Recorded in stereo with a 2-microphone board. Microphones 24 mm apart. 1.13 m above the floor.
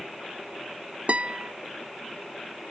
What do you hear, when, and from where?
1.1 s a guitar: 65° right (ahead or behind)